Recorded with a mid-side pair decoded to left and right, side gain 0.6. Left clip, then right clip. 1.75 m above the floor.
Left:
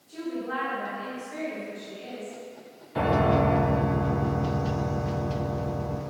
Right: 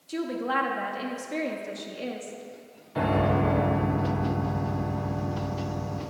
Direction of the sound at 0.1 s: 55° right.